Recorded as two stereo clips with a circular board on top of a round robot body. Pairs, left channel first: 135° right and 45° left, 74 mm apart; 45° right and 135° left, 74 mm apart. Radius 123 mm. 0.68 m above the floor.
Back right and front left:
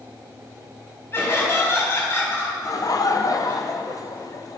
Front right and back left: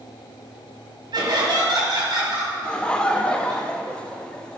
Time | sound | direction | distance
1.1 | laughter | 165° left | 4.5 m
2.6 | laughter | 120° right | 1.1 m